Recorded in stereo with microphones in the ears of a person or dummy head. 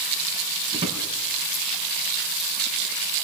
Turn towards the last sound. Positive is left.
turn(degrees=-25)  # may be behind; listen again after turning